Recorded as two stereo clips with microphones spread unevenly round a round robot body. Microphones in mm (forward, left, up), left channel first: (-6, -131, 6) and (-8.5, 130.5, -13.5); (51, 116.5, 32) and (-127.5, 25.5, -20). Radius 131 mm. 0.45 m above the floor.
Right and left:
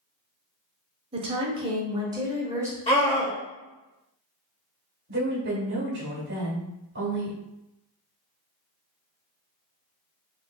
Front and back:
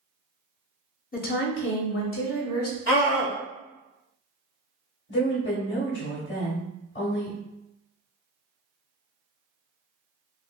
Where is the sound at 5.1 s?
55° left, 1.5 m.